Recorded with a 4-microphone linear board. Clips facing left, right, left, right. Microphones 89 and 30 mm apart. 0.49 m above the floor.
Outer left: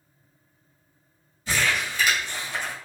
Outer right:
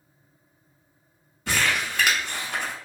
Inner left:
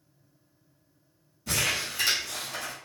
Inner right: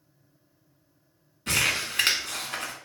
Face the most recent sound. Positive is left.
turn(degrees=-70)  # may be behind; listen again after turning